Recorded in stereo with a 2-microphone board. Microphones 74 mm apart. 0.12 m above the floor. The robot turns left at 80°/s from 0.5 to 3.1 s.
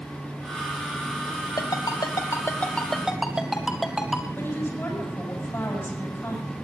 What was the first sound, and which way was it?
A ringtone, 60° left (ahead or behind).